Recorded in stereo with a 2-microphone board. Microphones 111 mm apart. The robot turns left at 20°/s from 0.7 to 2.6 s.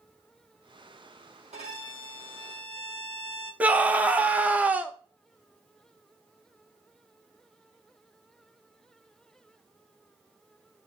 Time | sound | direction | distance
1.5 | a violin | 80° right | 3.5 m
3.6 | a scream | 10° right (ahead or behind) | 0.5 m